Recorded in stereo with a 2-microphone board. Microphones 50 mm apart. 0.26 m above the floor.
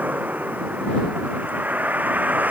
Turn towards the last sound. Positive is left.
turn(degrees=-35)  # may be behind; listen again after turning